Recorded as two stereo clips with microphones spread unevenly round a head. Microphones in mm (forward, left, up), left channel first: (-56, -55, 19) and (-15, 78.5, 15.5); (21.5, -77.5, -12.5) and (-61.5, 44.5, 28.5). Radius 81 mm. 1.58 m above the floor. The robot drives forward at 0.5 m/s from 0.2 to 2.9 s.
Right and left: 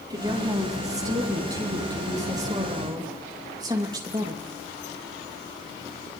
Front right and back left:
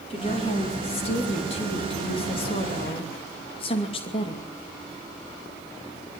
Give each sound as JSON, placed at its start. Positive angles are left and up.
{"t": 0.1, "sound": "a woman speaking", "azimuth_deg": 5, "distance_m": 4.0}